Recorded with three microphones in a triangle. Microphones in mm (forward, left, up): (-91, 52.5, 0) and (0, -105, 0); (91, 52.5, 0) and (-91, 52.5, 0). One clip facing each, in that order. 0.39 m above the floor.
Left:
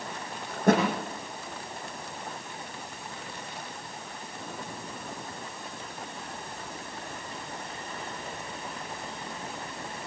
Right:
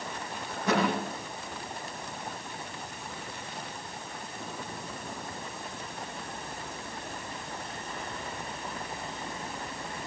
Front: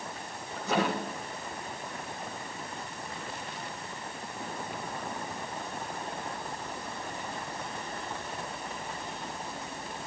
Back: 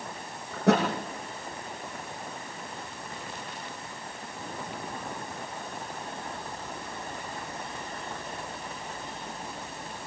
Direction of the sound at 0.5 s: 160° left.